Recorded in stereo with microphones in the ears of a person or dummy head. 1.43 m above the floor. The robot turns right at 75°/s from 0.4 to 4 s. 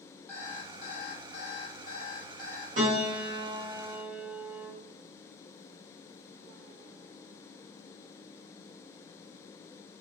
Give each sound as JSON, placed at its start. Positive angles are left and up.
{"t": 0.3, "sound": "an alarm clock", "azimuth_deg": 10, "distance_m": 1.2}
{"t": 2.8, "sound": "a piano", "azimuth_deg": -135, "distance_m": 1.1}